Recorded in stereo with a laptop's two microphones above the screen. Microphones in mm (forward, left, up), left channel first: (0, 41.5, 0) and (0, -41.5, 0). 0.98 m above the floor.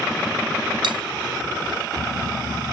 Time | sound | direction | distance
0.8 | cutlery clinking | 75° right (ahead or behind) | 1.0 m